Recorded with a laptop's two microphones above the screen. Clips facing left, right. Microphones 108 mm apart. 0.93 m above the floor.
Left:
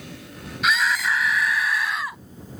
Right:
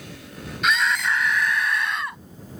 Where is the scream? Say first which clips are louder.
Even; centre (ahead or behind).